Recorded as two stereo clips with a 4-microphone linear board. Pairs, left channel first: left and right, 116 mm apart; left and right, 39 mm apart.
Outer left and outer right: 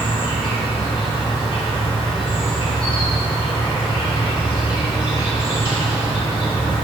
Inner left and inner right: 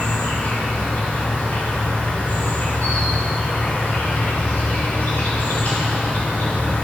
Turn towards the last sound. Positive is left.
turn(degrees=50)  # may be behind; listen again after turning